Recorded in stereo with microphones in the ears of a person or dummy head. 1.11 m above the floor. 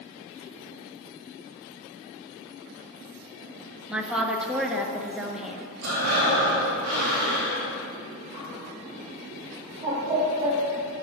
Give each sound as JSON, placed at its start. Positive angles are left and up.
{"t": 3.9, "sound": "a woman speaking", "side_deg": -5, "distance_m": 0.6}
{"t": 5.8, "sound": "breathing", "side_deg": -75, "distance_m": 1.3}
{"t": 8.3, "sound": "a bird", "side_deg": -30, "distance_m": 1.1}